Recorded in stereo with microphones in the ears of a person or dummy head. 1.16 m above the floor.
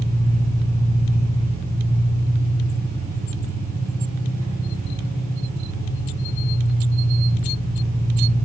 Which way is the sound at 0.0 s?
15° left (ahead or behind).